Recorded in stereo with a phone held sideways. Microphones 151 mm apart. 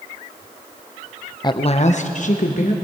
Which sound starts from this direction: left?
A woman speaking, at 1.4 s.